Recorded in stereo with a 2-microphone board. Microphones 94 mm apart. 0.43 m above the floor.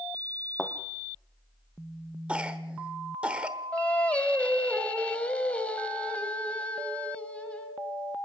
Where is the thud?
5° left (ahead or behind), 1.9 m.